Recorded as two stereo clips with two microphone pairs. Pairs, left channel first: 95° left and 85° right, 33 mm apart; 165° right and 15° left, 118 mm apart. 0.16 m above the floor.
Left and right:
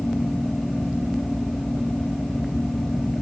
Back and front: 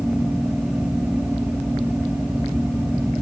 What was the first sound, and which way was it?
Only background noise.